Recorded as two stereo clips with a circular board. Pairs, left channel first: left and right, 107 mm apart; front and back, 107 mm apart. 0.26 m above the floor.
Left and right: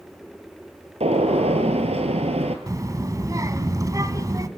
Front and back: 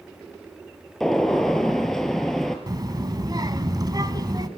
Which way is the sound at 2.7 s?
140° right.